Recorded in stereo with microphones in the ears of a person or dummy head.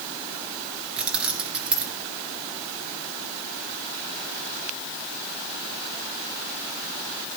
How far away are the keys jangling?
About 1.2 m.